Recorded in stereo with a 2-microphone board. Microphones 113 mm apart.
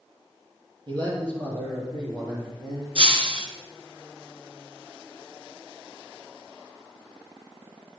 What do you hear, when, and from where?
0.9 s a man speaking: 50° right (ahead or behind), 4.5 m; by 2.9 s 40° right (ahead or behind), 6.5 m
3.0 s breaking glass: 60° right (ahead or behind), 1.5 m